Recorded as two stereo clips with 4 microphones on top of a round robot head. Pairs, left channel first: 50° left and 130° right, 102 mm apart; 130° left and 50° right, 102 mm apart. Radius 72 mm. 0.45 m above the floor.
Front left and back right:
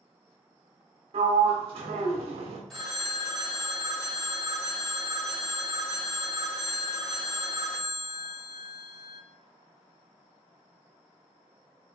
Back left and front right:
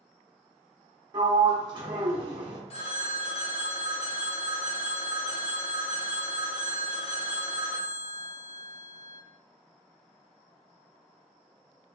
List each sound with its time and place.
1.1 s a sliding door: 100° right, 1.1 m
2.7 s a phone ringing: 135° left, 1.7 m